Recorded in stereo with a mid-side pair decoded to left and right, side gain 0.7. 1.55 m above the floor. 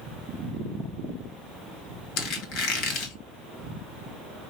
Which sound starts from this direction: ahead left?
A squeak, at 2.2 s.